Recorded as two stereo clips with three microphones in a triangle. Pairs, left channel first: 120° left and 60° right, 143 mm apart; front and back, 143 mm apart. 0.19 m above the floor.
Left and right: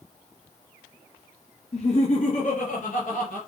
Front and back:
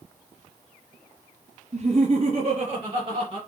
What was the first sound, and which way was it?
Laughter, 155° left.